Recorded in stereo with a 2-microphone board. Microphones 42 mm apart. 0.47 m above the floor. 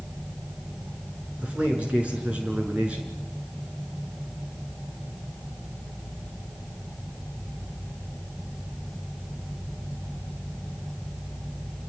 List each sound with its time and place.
1.4 s a man speaking: 30° right (ahead or behind), 7.5 m